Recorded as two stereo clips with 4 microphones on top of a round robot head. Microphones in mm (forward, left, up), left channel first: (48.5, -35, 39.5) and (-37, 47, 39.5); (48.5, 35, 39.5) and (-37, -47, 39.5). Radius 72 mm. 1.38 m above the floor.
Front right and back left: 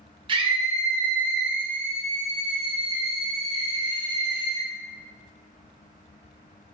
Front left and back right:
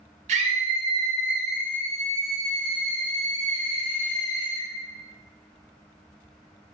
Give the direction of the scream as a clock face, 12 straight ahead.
6 o'clock.